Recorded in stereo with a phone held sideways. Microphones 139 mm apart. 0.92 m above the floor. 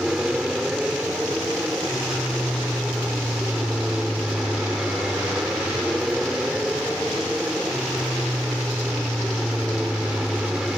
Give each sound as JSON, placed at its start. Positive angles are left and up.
{"t": 0.0, "sound": "an aircraft", "side_deg": -5}